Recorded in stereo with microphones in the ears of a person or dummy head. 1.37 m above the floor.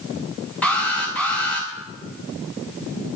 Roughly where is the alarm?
Centre.